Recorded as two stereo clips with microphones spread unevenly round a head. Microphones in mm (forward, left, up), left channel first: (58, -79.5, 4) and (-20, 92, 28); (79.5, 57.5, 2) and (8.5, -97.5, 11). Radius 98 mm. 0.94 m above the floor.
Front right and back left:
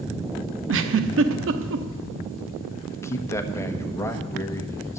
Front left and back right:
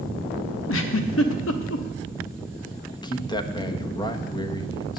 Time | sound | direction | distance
0.7 | a giggle | 95° left | 1.0 m
2.9 | a man speaking | 5° left | 1.2 m